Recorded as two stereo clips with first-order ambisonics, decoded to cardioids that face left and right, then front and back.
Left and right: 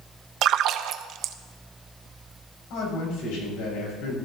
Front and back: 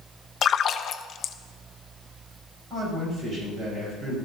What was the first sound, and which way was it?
A splash, 55° right.